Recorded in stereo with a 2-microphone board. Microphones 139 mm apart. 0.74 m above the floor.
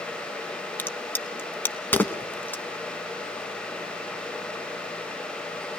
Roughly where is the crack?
Centre.